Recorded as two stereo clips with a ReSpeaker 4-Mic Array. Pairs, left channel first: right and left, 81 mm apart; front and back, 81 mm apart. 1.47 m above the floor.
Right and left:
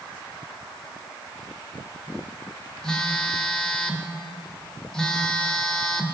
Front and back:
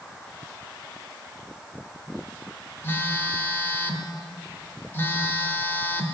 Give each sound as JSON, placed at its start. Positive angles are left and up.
{"t": 2.8, "sound": "a phone buzzing", "azimuth_deg": -20, "distance_m": 1.2}